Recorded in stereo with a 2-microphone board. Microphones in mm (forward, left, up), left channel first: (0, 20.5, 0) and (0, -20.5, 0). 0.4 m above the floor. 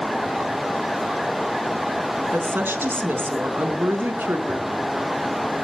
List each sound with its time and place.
2.3 s a woman speaking: 65° right (ahead or behind), 4 m
4.5 s a gunshot: 75° right (ahead or behind), 6 m